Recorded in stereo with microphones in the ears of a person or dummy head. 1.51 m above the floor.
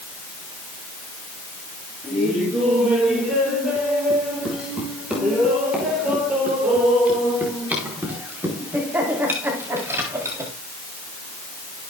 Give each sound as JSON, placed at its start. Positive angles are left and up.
{"t": 2.0, "sound": "laughter", "side_deg": -5, "distance_m": 7.5}